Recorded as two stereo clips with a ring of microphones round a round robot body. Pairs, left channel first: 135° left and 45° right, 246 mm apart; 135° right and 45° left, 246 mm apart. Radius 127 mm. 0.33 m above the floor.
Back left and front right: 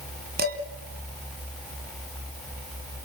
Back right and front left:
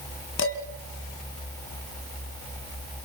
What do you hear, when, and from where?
0.4 s dishes clattering: 95° right, 2.5 m